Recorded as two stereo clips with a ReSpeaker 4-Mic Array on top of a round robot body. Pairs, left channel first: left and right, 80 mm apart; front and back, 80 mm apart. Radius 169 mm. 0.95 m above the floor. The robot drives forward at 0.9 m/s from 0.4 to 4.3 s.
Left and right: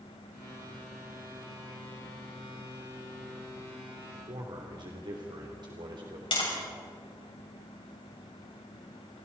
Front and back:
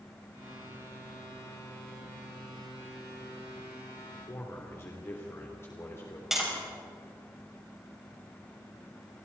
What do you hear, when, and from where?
4.3 s a man speaking: 60° right, 3.5 m
6.3 s tapping: 95° left, 7 m